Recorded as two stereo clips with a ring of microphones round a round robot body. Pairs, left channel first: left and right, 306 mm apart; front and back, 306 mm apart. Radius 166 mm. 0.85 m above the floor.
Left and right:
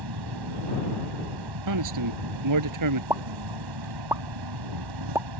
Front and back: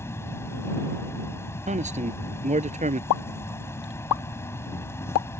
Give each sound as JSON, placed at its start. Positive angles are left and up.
{"t": 0.0, "sound": "an insect", "azimuth_deg": -80}
{"t": 1.7, "sound": "a man speaking", "azimuth_deg": -110}
{"t": 3.1, "sound": "a pop", "azimuth_deg": -10}